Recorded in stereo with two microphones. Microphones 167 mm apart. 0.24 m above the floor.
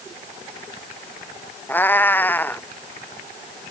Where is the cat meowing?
10° left (ahead or behind).